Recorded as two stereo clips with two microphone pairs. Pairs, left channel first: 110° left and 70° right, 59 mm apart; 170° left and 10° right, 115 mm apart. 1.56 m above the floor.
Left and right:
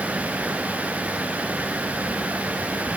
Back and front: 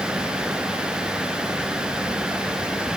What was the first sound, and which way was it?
Only background noise.